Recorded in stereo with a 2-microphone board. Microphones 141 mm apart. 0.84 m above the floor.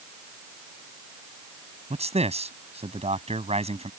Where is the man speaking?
50° right (ahead or behind).